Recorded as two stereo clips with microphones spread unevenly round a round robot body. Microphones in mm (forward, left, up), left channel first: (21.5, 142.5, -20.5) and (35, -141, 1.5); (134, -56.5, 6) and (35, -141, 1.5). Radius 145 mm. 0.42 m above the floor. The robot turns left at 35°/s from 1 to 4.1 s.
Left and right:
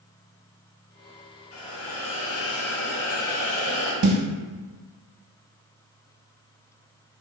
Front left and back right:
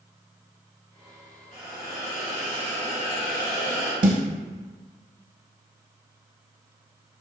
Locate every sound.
1.5 s a hiss: 150° left, 1.5 m; by 3.9 s 65° left, 1.5 m
4.0 s a snare drum: 125° right, 0.6 m; by 4.2 s 130° right, 0.6 m